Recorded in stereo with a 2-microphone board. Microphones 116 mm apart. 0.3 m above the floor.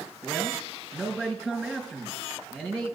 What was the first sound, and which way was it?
A man speaking, 10° right (ahead or behind).